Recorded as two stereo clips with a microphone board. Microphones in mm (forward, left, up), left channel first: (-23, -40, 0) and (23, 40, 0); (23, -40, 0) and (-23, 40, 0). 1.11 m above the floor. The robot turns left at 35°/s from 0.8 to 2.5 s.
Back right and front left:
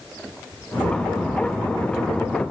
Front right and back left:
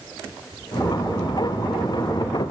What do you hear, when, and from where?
Only background noise.